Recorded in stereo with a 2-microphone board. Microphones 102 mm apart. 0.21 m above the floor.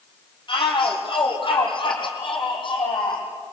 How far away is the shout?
About 6 m.